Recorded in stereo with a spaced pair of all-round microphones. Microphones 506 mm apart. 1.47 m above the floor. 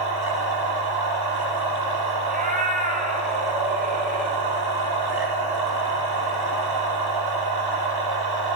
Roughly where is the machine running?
Right.